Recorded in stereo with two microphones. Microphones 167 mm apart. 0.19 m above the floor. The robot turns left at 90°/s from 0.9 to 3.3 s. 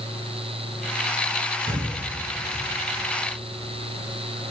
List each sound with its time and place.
1.7 s breathing: 25° right (ahead or behind), 1.9 m; by 2.0 s 5° right (ahead or behind), 1.9 m